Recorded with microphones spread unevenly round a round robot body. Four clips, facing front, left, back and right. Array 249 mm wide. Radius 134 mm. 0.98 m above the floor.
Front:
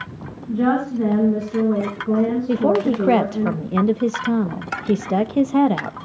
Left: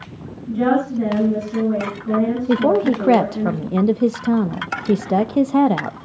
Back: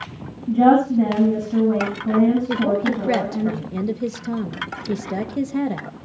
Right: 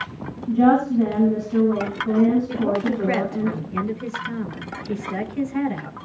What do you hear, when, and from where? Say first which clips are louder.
0.5 s a woman speaking: right 1 dB, back 5 dB; 170° right, 7.5 m
2.5 s a woman speaking: left 6 dB, front 3 dB; 65° left, 0.9 m